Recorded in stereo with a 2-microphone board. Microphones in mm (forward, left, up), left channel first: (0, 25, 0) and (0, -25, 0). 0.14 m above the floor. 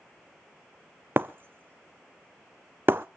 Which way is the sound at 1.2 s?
45° right (ahead or behind).